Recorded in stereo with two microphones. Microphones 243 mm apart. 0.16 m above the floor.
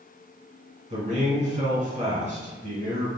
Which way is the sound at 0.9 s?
30° right (ahead or behind).